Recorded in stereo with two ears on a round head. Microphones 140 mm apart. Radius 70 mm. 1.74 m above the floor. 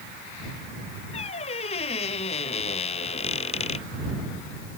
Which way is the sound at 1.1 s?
40° left (ahead or behind).